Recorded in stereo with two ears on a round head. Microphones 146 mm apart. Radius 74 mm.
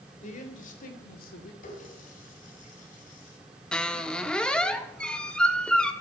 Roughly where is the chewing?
I don't hear chewing.